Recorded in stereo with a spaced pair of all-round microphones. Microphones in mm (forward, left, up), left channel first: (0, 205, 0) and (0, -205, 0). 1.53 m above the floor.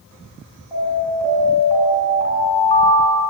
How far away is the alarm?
About 9 m.